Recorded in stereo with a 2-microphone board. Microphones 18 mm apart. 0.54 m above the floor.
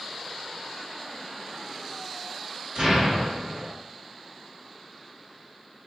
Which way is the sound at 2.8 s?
45° right (ahead or behind).